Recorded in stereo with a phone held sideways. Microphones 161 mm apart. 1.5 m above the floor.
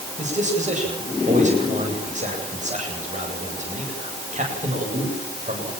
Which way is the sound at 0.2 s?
45° right (ahead or behind).